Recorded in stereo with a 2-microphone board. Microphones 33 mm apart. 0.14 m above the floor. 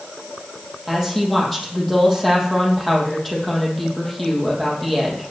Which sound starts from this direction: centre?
A woman speaking, at 0.9 s.